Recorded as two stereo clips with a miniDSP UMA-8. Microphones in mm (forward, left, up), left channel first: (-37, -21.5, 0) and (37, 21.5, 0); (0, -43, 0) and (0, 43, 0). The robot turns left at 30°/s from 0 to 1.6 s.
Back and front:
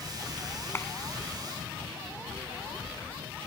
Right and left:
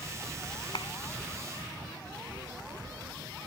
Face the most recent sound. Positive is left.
turn(degrees=-110)